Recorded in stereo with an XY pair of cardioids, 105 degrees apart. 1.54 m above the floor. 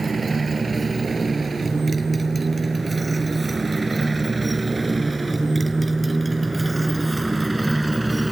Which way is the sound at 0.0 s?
25° right.